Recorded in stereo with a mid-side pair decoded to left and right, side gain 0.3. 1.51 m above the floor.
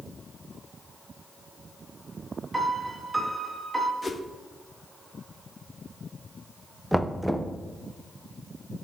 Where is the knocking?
5° right, 0.7 m.